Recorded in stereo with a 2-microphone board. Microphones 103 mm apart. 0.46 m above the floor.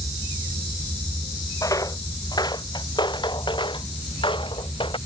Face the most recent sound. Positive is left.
turn(degrees=55)  # may be behind; listen again after turning